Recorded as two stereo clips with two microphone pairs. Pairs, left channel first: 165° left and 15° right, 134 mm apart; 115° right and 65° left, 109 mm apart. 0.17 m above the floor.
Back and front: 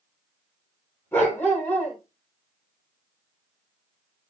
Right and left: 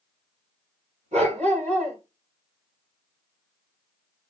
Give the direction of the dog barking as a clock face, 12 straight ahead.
9 o'clock.